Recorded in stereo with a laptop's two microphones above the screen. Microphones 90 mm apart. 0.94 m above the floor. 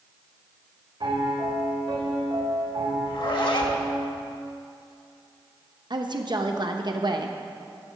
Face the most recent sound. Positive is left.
turn(degrees=-55)  # may be behind; listen again after turning